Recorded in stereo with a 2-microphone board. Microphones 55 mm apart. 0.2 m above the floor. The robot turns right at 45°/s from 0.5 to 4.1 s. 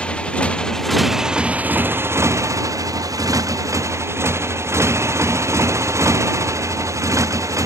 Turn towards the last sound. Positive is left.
turn(degrees=-65)  # may be behind; listen again after turning